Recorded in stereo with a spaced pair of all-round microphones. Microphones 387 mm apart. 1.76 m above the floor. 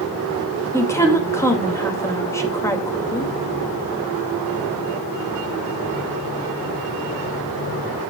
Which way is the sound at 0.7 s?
5° left (ahead or behind).